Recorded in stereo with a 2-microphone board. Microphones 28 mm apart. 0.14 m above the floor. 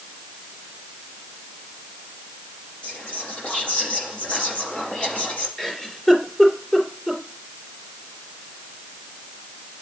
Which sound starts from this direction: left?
Whispering, at 2.8 s.